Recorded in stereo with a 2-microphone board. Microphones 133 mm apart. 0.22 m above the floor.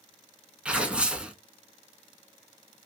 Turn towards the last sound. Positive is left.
turn(degrees=-10)  # may be behind; listen again after turning